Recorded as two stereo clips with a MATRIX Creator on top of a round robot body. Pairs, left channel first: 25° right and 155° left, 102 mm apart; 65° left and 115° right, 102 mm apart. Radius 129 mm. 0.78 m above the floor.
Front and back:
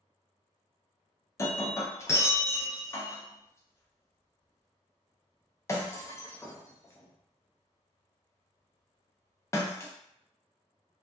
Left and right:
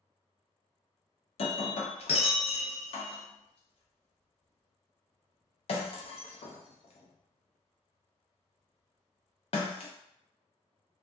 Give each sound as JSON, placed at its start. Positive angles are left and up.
{"t": 1.4, "sound": "breaking glass", "azimuth_deg": 40, "distance_m": 0.5}